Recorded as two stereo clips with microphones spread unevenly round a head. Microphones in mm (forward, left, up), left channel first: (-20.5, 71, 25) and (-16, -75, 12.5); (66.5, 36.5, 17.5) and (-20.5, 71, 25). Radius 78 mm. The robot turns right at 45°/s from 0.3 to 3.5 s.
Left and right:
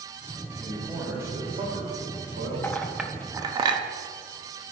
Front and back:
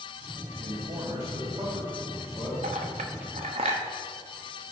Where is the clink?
170° left, 0.7 m; by 3.8 s 150° right, 0.7 m.